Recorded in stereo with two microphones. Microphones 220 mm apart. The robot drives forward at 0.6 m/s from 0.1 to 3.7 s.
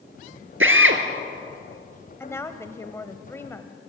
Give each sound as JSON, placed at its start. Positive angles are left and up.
{"t": 0.6, "sound": "a drill", "side_deg": -70, "distance_m": 1.7}
{"t": 2.2, "sound": "a woman speaking", "side_deg": 10, "distance_m": 1.0}